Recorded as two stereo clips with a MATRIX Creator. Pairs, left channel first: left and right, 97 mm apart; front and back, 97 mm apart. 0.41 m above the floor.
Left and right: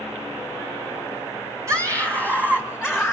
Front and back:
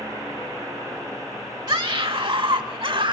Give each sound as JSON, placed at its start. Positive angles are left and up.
{"t": 1.7, "sound": "a scream", "azimuth_deg": -140, "distance_m": 1.6}